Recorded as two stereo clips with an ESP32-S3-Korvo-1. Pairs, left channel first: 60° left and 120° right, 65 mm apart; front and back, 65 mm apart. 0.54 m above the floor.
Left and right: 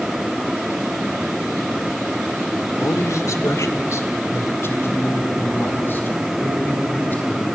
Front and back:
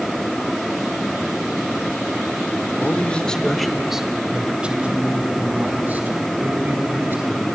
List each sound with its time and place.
2.8 s a man speaking: 45° left, 1.6 m; by 7.5 s 125° left, 7 m